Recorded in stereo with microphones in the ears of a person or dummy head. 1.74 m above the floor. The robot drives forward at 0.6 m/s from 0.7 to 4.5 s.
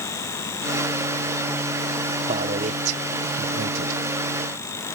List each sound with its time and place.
2.3 s a man speaking: 40° right (ahead or behind); by 4.0 s 75° right (ahead or behind)